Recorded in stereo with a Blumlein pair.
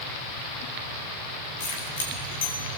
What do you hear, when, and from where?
1.6 s keys jangling: 65° left, 7.5 m